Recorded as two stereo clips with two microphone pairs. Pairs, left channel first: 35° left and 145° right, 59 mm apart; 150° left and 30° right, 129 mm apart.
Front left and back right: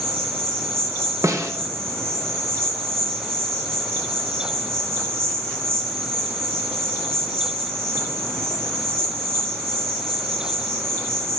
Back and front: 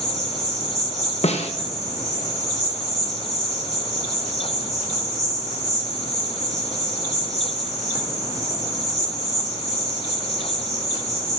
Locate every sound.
0.0 s an insect: 95° right, 2.5 m
1.2 s a snare drum: 175° right, 0.9 m